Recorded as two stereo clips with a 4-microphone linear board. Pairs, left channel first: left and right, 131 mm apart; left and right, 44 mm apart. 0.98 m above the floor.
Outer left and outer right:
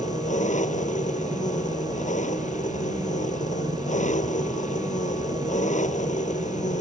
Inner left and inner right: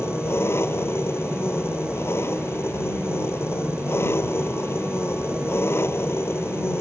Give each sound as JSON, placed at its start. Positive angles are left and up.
{"t": 0.0, "sound": "an engine running", "side_deg": 70}